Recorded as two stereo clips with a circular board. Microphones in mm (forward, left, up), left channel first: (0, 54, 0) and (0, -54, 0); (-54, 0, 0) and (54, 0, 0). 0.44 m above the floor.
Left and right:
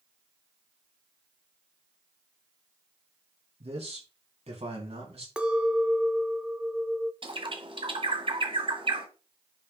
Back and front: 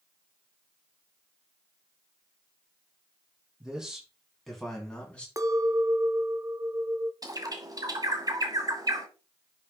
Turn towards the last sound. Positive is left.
turn(degrees=-55)